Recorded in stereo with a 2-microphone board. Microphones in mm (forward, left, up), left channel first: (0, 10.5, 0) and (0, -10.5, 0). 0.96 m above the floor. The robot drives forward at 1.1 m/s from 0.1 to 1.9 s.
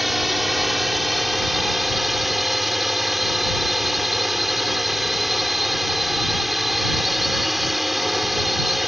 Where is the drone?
5° right (ahead or behind).